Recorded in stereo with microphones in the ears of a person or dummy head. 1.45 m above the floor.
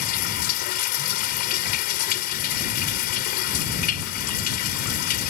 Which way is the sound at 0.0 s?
55° left (ahead or behind).